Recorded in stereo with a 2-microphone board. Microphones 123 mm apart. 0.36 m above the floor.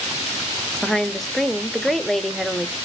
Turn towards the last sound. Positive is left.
turn(degrees=0)  # may be behind; listen again after turning